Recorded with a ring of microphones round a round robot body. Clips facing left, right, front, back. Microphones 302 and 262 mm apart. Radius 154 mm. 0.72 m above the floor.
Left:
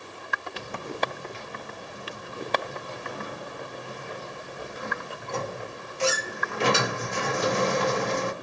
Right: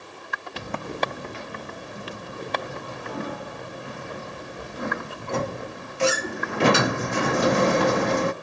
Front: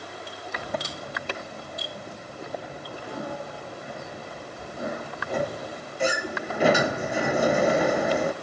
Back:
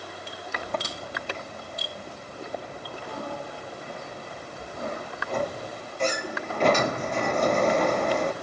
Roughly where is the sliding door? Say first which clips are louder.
Right 3 dB, even; right.